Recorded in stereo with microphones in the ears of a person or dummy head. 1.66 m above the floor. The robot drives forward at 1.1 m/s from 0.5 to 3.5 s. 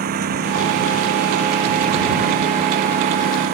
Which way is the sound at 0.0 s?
50° right (ahead or behind).